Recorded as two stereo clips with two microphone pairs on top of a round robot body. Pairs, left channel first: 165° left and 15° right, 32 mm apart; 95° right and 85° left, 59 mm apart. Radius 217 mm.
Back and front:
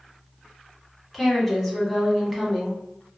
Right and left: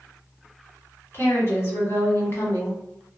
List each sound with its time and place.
1.1 s a woman speaking: 120° right, 1.6 m